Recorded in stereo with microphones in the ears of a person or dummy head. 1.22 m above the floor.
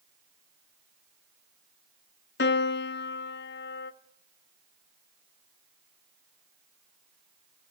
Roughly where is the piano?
Left.